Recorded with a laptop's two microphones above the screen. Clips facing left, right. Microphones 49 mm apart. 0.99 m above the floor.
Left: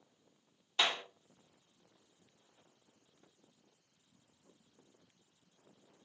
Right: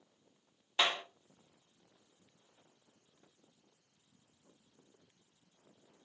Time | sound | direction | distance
0.8 | a clap | 20° right (ahead or behind) | 2 m